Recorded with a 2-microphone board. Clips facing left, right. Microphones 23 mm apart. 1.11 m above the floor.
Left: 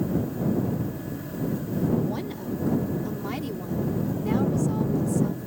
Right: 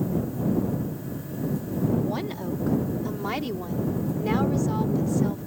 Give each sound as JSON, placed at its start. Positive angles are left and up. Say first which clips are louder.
{"t": 2.0, "sound": "a woman speaking", "louder": "right 1 dB", "side_deg": -25}